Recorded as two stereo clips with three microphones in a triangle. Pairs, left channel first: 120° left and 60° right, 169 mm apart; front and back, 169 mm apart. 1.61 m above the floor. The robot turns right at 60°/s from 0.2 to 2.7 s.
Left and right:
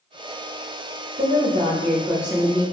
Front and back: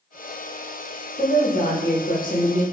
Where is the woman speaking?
40° right, 0.9 m; by 2.6 s 50° left, 0.9 m.